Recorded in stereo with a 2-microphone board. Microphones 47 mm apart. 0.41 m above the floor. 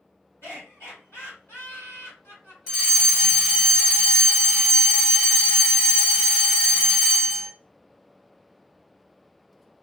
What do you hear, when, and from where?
0.4 s laughter: 55° left (ahead or behind), 2 m
2.7 s a fire alarm: 15° left (ahead or behind), 1.9 m